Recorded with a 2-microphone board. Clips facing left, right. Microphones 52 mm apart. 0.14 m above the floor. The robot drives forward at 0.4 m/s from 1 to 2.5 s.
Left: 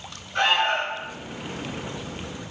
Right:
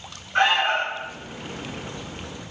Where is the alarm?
40° right (ahead or behind), 1.7 m.